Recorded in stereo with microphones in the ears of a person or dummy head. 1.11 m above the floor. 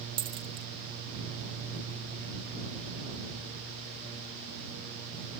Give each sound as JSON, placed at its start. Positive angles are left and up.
{"t": 0.2, "sound": "a dropped coin", "side_deg": -35}